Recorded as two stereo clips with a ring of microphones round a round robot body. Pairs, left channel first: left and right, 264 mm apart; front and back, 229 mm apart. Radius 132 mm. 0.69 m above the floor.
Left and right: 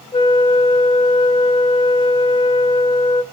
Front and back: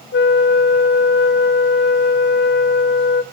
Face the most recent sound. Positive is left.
turn(degrees=20)